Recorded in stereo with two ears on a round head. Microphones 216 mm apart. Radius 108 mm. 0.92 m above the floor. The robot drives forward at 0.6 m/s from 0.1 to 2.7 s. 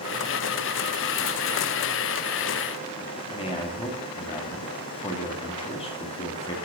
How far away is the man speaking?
About 2 m.